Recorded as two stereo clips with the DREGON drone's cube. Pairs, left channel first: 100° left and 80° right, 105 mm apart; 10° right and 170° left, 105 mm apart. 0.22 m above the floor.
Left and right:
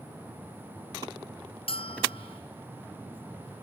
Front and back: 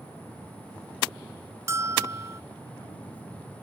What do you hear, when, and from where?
1.7 s a bell: 110° left